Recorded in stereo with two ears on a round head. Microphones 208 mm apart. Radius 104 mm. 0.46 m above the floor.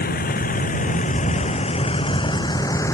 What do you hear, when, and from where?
0.0 s a vehicle: 40° left (ahead or behind); by 3.0 s 15° left (ahead or behind)